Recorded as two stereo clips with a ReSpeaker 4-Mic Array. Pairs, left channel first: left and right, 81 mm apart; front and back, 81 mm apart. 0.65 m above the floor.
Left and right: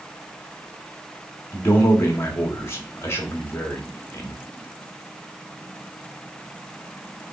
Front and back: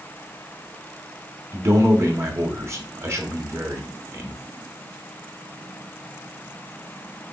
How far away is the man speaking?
About 1.1 m.